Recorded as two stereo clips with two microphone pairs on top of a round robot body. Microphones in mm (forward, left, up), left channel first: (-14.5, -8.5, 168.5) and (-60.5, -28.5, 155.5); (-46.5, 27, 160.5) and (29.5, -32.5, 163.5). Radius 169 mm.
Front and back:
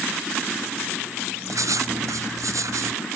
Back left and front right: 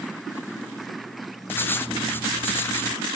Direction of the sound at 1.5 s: 150° right.